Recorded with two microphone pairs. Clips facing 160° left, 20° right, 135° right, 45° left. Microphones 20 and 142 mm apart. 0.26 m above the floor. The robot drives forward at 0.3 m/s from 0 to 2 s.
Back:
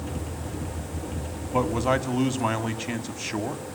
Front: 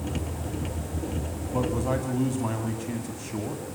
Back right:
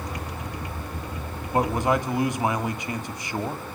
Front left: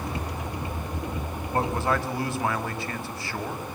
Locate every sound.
1.5 s a man speaking: 155° left, 2.0 m; by 3.6 s 160° left, 2 m